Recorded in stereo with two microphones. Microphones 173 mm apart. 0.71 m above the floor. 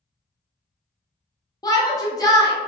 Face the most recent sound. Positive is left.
turn(degrees=20)  # may be behind; listen again after turning